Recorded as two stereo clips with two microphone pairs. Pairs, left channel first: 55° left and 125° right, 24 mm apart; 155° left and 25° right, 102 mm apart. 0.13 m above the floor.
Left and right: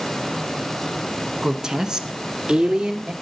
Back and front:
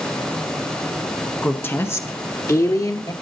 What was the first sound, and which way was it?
A woman speaking, 170° right.